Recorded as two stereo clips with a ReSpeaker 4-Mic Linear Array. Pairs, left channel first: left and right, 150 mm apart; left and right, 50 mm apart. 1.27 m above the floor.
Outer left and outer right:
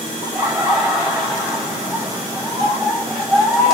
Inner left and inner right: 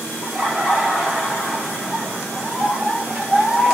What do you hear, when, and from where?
0.2 s laughter: 10° right (ahead or behind), 2 m